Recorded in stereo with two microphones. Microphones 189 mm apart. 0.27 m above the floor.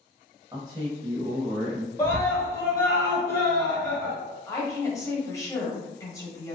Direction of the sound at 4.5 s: 15° left (ahead or behind).